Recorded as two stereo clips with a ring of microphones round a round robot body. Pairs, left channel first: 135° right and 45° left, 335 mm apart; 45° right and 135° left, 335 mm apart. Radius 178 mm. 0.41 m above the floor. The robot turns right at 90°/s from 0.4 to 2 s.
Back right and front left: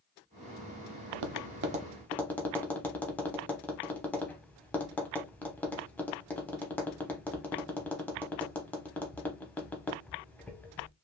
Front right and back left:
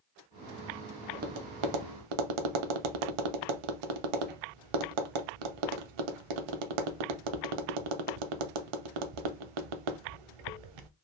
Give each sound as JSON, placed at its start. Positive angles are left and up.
{"t": 1.1, "sound": "tapping", "azimuth_deg": 60, "distance_m": 0.6}